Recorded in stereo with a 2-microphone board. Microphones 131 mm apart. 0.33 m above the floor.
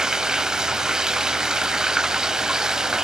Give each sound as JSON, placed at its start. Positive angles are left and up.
{"t": 0.0, "sound": "running water", "side_deg": -5, "distance_m": 0.7}